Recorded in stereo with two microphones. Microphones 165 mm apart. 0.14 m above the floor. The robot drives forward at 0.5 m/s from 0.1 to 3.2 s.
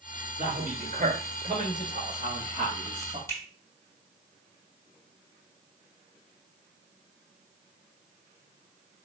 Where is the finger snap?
15° left (ahead or behind), 3.5 m.